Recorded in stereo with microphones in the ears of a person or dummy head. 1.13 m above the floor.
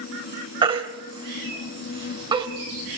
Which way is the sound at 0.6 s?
30° right (ahead or behind).